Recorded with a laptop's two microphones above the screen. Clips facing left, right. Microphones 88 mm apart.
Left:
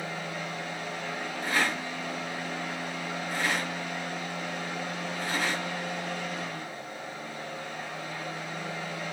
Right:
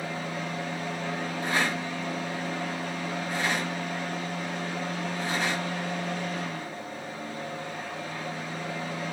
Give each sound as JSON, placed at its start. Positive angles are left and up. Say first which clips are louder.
{"t": 0.0, "sound": "a fan", "louder": "right 2 dB", "side_deg": -40, "distance_m": 1.4}
{"t": 1.4, "sound": "a rattle", "louder": "even", "side_deg": -20, "distance_m": 1.4}